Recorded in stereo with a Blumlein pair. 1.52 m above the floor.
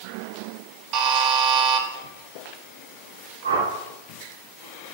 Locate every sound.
0.9 s a buzzer: 35° right, 1.1 m
3.4 s a whoosh: 70° right, 2.5 m